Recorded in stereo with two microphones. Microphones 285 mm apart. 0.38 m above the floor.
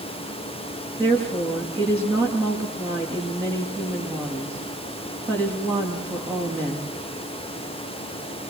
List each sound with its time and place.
1.0 s a woman speaking: 10° right (ahead or behind), 6 m